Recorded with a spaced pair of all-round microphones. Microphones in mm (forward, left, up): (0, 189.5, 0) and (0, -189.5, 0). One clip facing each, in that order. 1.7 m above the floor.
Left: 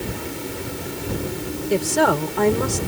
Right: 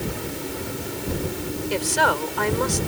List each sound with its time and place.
1.7 s a woman speaking: 65° left (ahead or behind)